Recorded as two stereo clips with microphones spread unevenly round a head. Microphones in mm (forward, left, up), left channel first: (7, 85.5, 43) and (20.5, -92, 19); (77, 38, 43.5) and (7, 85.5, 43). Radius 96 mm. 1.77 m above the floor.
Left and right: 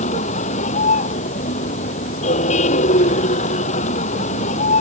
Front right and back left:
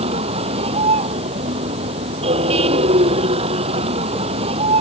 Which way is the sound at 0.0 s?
150° left.